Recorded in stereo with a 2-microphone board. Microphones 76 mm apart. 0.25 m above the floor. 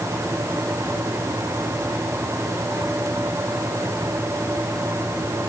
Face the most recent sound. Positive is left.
No sound to turn to.